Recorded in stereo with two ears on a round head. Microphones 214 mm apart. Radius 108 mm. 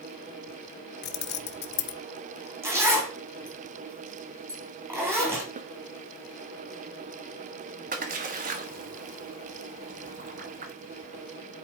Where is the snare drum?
30° right (ahead or behind), 0.6 m.